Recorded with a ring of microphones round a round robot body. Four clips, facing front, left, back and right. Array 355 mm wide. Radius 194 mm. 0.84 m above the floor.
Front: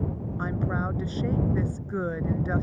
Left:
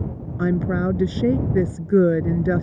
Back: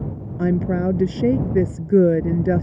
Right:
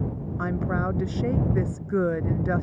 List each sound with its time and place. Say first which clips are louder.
0.4 s a woman speaking: left 6 dB, back 10 dB; 145° left